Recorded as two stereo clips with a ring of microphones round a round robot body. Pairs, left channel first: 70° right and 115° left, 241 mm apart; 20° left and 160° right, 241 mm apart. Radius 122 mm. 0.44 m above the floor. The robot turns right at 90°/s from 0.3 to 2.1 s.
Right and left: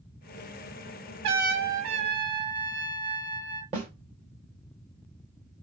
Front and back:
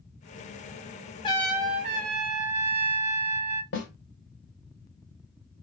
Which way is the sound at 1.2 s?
95° left.